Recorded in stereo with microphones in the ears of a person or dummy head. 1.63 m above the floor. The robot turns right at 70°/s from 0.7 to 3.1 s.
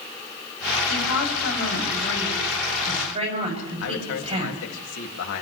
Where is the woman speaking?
70° left, 9 m; by 4.6 s 140° right, 9 m.